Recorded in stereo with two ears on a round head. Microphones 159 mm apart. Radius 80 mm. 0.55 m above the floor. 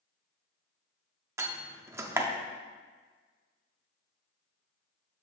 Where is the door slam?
15° right (ahead or behind), 0.7 m.